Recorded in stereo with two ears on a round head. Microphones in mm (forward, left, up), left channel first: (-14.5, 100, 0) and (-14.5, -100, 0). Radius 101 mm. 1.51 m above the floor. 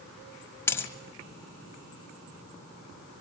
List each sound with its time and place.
0.7 s a dropped coin: 10° left (ahead or behind), 1.5 m